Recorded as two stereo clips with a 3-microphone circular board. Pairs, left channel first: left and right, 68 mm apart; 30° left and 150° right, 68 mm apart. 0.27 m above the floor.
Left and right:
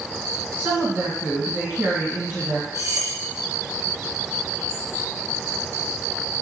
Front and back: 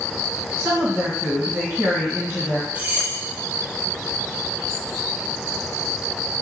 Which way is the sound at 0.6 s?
125° right.